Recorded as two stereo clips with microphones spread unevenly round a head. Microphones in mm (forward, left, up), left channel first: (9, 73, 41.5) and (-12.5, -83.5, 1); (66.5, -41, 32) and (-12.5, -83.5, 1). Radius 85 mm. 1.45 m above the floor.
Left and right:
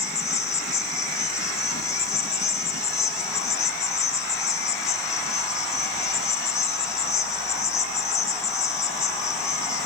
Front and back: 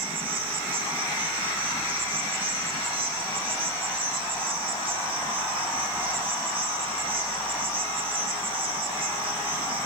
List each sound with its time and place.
0.0 s an insect: 155° left, 3 m